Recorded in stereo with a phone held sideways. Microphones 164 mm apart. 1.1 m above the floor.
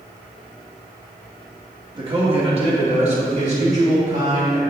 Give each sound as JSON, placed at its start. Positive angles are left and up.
{"t": 1.9, "sound": "a man speaking", "side_deg": -30, "distance_m": 1.8}